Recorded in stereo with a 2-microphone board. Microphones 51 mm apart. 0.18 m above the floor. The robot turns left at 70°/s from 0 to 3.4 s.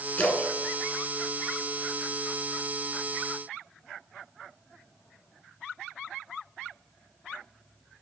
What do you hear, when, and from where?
0.2 s a splash: 30° left (ahead or behind), 1.3 m; by 1.9 s 15° left (ahead or behind), 1.3 m